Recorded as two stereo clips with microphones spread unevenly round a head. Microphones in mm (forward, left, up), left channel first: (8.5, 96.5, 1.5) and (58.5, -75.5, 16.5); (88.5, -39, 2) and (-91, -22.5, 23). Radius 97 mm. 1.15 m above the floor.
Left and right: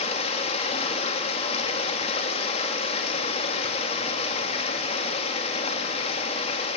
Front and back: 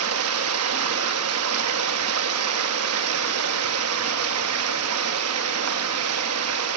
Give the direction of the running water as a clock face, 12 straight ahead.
6 o'clock.